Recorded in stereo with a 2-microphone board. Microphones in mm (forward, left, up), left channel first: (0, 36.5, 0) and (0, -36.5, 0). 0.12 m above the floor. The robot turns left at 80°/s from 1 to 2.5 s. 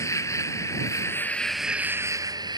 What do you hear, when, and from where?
0.0 s an insect: 45° left; by 2.6 s 75° right